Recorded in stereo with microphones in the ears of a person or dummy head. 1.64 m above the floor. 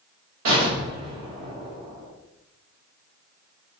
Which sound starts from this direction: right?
An explosion, at 0.5 s.